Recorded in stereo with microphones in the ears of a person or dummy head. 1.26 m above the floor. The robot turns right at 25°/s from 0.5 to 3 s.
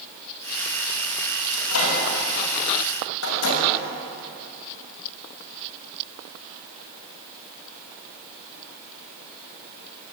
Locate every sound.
1.5 s a microwave: 65° left (ahead or behind), 6 m; by 3.6 s 75° left (ahead or behind), 6 m